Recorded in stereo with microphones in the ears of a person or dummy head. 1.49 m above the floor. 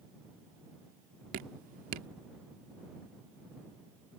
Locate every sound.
1.3 s dripping: 50° right (ahead or behind)